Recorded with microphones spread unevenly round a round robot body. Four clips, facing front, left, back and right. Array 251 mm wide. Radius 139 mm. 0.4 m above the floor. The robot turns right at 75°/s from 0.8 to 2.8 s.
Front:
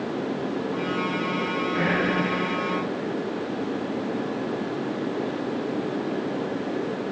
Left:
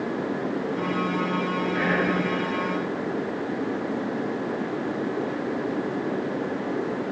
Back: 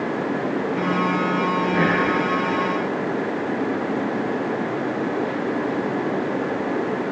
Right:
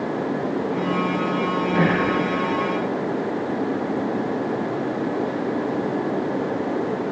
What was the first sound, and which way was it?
Whispering, 120° right.